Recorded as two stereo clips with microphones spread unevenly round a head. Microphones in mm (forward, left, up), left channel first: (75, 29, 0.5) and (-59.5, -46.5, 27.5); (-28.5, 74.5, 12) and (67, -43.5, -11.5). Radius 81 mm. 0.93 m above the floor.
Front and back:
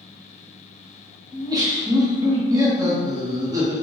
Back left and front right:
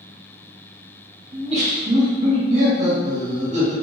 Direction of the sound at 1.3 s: 80° right.